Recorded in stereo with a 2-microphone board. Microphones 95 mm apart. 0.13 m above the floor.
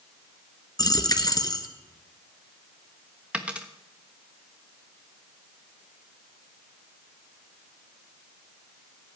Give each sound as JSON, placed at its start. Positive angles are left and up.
{"t": 0.8, "sound": "a dropped coin", "side_deg": 45, "distance_m": 0.9}
{"t": 3.3, "sound": "a dropped coin", "side_deg": -10, "distance_m": 1.2}